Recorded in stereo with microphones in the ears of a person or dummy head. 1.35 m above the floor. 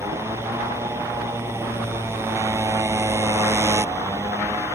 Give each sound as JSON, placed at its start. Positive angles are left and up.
{"t": 0.0, "sound": "a motorcycle", "side_deg": -10}